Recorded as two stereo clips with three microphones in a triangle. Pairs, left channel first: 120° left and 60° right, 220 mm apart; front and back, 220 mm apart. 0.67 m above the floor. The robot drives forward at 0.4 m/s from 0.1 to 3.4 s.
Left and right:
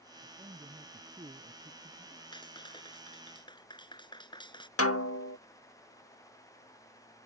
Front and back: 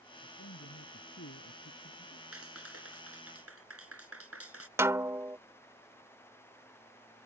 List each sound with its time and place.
0.2 s a man speaking: 10° left
2.3 s a clap: 170° right
4.8 s a snare drum: 100° left